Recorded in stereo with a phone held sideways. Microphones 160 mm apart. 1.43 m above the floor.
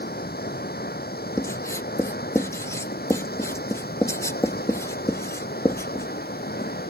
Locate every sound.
0.0 s running water: 80° left
1.4 s writing: 20° left (ahead or behind)